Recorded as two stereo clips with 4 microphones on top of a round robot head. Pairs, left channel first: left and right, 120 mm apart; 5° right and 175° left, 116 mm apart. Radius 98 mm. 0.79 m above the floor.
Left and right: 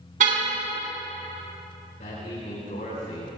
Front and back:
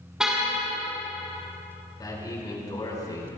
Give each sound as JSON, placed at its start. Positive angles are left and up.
{"t": 0.2, "sound": "a car horn", "azimuth_deg": -95, "distance_m": 4.5}
{"t": 2.0, "sound": "a man speaking", "azimuth_deg": 55, "distance_m": 9.0}